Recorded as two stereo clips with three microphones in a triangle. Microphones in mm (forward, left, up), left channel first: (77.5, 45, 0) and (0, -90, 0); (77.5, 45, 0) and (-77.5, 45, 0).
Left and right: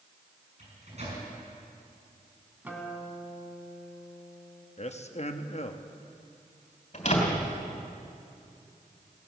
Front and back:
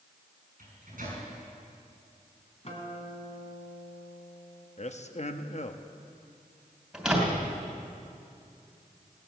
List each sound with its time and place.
0.6 s a microwave: 160° right, 6.5 m
2.6 s a guitar: 40° right, 2 m
4.8 s a man speaking: 30° left, 0.8 m
6.9 s a door slam: 95° left, 3 m